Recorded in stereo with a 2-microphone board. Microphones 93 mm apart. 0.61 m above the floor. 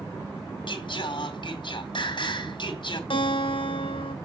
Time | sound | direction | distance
0.7 | singing | 60° left (ahead or behind) | 2 m
3.1 | a guitar | 75° left (ahead or behind) | 2 m